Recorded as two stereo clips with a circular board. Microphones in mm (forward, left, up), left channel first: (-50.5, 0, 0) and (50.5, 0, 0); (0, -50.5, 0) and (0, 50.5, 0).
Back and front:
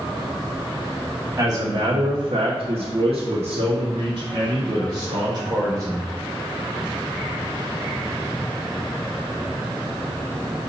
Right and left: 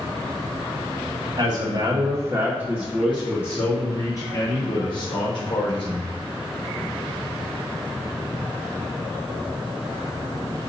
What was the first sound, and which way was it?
A man speaking, 55° left.